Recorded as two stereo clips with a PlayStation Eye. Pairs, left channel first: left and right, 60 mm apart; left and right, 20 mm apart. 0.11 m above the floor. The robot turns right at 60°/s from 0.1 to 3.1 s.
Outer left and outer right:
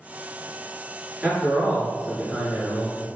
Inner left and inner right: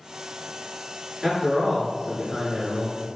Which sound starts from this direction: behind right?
A man speaking, at 1.2 s.